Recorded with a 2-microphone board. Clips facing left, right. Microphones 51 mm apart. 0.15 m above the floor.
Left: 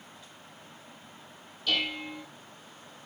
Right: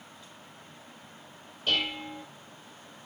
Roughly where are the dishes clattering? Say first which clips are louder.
Right 1 dB; right.